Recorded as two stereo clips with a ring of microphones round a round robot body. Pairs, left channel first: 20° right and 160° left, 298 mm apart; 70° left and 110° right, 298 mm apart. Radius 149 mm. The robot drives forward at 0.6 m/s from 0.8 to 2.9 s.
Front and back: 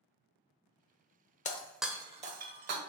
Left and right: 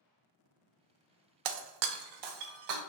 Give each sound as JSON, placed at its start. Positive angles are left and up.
{"t": 1.4, "sound": "breaking glass", "azimuth_deg": -90, "distance_m": 0.5}